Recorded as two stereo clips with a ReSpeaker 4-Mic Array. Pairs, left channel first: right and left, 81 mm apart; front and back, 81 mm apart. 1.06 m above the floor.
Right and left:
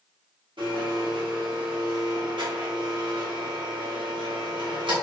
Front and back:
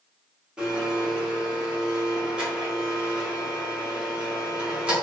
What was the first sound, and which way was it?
A blender, 100° left.